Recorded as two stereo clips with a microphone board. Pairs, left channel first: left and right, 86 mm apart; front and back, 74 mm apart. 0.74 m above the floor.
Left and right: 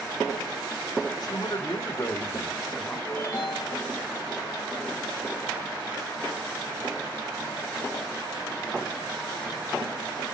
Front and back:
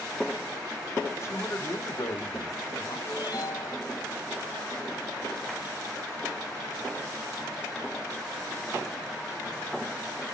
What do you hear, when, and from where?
1.2 s a man speaking: 50° left, 2.5 m; by 3.0 s 20° left, 2.5 m
3.1 s a ringtone: 35° left, 5.5 m